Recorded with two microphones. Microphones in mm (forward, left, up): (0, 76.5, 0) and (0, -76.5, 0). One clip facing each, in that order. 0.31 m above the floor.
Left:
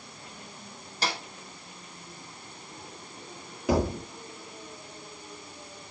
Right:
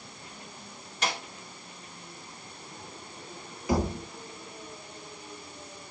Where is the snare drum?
35° left (ahead or behind), 1.3 m.